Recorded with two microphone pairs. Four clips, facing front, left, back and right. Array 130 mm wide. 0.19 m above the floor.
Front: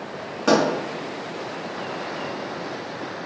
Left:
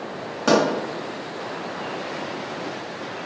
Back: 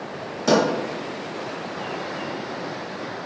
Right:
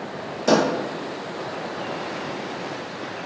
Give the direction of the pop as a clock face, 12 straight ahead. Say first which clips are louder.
Even, even; 10 o'clock.